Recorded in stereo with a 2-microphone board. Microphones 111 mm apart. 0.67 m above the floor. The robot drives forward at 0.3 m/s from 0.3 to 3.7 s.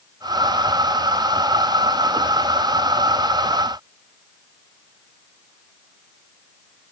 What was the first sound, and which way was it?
Only background noise.